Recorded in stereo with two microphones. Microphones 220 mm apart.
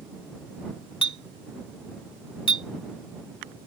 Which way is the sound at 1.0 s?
25° left (ahead or behind).